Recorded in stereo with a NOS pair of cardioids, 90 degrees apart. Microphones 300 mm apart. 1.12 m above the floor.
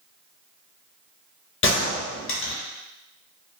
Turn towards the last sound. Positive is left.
turn(degrees=40)